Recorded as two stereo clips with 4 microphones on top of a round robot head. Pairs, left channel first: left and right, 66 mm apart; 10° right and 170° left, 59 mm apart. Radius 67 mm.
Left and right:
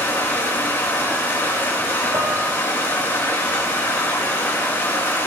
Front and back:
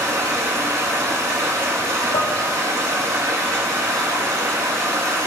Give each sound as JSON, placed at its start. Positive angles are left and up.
{"t": 0.0, "sound": "running water", "azimuth_deg": 145, "distance_m": 2.5}
{"t": 2.1, "sound": "dishes clattering", "azimuth_deg": -25, "distance_m": 1.3}